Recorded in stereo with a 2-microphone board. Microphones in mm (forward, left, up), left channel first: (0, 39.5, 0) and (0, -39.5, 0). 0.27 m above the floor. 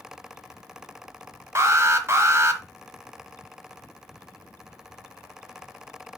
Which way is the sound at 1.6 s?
40° right (ahead or behind).